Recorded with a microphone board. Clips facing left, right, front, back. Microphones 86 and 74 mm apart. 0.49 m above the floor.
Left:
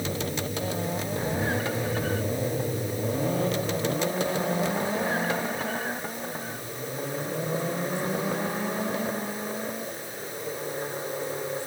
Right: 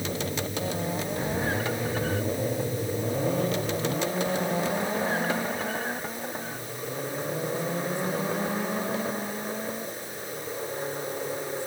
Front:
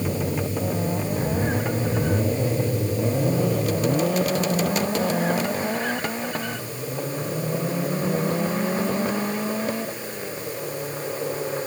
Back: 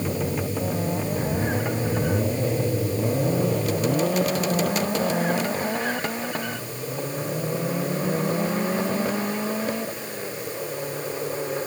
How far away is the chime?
I don't hear a chime.